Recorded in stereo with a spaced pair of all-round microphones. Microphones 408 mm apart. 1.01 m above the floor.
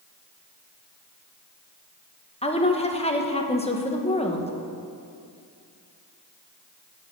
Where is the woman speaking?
15° left (ahead or behind), 1.0 m.